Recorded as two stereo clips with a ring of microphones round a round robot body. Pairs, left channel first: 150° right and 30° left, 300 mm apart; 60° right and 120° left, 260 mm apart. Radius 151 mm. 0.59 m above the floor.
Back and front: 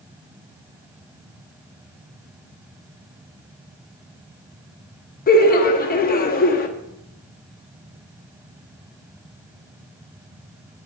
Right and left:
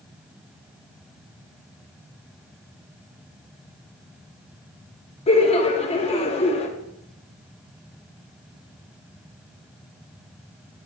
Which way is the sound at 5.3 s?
110° right.